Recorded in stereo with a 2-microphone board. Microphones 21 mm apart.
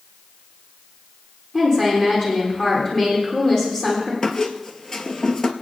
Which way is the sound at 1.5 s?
20° left (ahead or behind).